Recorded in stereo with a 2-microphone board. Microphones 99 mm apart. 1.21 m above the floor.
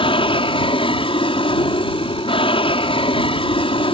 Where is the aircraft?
65° left (ahead or behind).